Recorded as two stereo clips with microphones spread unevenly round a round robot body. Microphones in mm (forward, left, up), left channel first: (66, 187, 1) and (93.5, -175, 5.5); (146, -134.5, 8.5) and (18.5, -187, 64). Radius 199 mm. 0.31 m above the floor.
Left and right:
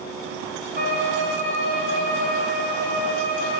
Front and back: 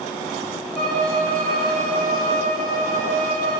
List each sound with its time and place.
0.8 s a violin: 165° right, 3.5 m